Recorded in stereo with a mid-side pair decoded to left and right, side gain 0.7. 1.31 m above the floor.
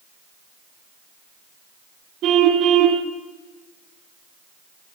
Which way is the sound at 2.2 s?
50° right.